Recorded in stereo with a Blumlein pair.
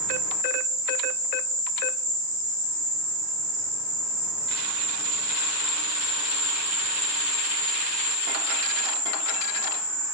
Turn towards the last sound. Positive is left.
turn(degrees=-50)